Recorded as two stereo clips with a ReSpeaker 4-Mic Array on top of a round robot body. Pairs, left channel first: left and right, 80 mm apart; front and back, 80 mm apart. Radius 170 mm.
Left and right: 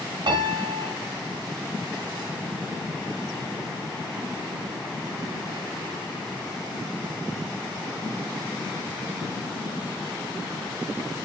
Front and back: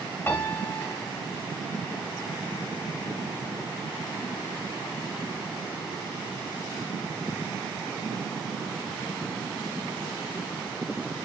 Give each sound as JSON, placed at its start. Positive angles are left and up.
{"t": 0.3, "sound": "a piano", "azimuth_deg": -65, "distance_m": 0.8}